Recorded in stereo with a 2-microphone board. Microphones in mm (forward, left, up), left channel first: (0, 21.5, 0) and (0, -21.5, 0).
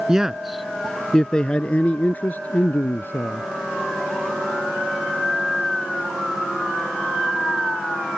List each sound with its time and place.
0.1 s a man speaking: 20° right (ahead or behind); by 3.5 s 55° left (ahead or behind)